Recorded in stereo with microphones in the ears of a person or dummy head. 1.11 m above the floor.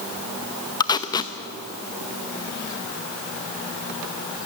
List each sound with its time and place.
0.8 s tape being pulled: 25° left (ahead or behind), 0.7 m